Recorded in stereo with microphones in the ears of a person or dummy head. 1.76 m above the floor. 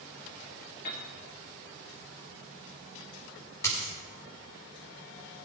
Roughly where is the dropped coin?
Centre.